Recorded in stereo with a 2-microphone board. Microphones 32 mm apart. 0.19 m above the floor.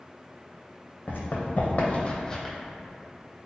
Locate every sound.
1.1 s running footsteps: 70° left (ahead or behind), 0.8 m; by 2.5 s 5° left (ahead or behind), 0.5 m